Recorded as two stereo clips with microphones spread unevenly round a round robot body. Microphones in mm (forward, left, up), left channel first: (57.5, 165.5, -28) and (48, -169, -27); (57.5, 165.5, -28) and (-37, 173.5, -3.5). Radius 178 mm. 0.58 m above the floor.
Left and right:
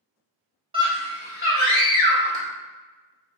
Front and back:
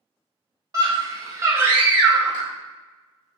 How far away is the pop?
About 1.1 m.